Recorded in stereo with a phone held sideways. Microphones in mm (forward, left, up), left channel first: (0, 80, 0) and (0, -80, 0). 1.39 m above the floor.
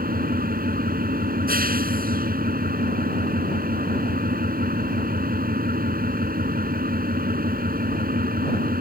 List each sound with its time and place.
0.0 s an engine running: 75° right (ahead or behind)